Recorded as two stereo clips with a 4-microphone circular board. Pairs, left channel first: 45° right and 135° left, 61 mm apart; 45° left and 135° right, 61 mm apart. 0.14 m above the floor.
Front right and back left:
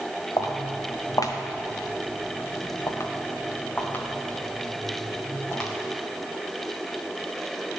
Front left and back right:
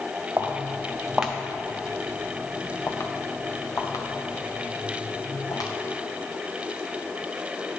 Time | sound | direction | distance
0.4 | footsteps | 70° right | 1.5 m